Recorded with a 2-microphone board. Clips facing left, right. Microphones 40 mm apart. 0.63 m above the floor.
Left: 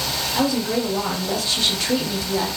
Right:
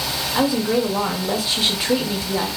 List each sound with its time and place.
0.3 s a woman speaking: 15° right (ahead or behind), 0.5 m